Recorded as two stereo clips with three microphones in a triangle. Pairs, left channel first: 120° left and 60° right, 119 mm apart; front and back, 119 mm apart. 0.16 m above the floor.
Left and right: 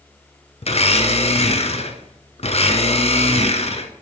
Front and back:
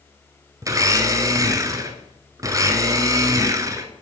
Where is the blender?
125° left, 0.7 m.